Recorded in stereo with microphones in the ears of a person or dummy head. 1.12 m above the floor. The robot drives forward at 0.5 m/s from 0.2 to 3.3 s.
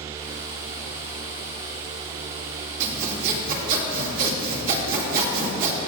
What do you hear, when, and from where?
2.8 s sawing: 45° right (ahead or behind), 2.5 m; by 5.8 s 50° right (ahead or behind), 2 m